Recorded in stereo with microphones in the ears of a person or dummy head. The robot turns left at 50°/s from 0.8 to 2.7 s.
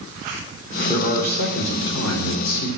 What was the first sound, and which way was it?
A man speaking, 150° left.